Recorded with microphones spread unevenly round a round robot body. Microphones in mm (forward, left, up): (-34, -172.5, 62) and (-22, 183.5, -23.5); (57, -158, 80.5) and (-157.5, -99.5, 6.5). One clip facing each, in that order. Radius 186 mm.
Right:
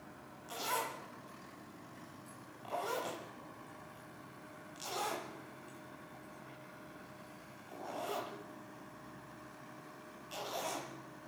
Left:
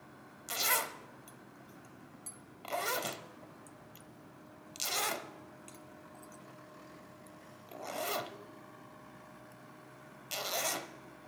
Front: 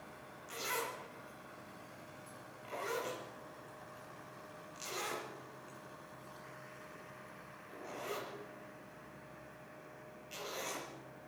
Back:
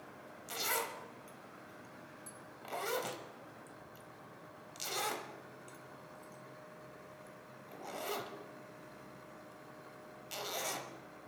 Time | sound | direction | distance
0.5 | a zipper | 120° left | 1.0 m